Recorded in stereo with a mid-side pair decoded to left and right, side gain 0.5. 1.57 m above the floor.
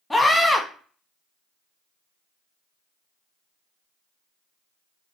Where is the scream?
5° left, 1.4 m.